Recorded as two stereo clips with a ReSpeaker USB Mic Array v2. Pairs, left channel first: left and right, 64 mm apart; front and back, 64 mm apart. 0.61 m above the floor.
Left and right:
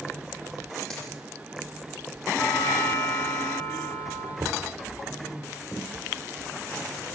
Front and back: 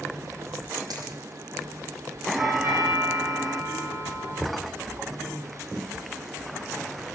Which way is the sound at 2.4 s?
130° left.